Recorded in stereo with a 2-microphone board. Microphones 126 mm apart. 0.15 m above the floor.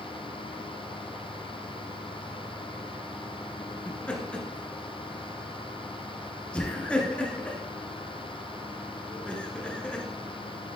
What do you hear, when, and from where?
3.9 s laughter: 10° left (ahead or behind), 1.7 m